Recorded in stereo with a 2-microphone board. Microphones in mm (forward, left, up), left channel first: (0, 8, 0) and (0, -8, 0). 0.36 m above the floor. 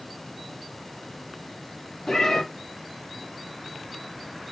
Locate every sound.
2.1 s a cat meowing: 35° left (ahead or behind), 1.8 m